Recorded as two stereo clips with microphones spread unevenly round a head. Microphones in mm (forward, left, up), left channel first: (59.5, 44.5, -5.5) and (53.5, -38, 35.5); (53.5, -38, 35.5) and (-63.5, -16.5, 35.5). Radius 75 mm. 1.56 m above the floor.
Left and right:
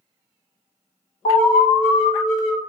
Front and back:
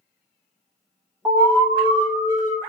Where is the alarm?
100° left, 1.4 m.